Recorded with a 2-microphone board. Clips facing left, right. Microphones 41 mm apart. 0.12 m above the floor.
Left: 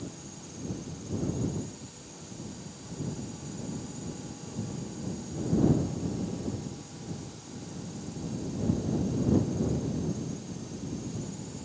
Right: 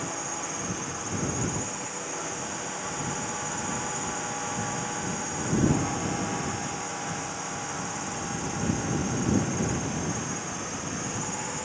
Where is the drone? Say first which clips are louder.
Right 10 dB; 70° right (ahead or behind).